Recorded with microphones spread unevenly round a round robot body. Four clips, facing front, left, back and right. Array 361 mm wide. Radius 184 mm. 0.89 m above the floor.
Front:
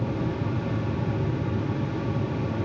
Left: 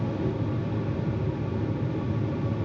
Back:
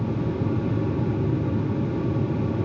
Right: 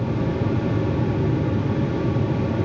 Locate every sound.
Only background noise.